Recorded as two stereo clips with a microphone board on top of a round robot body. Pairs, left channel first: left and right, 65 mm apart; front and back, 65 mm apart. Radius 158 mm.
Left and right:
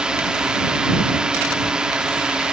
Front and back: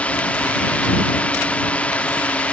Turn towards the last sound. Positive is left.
turn(degrees=-30)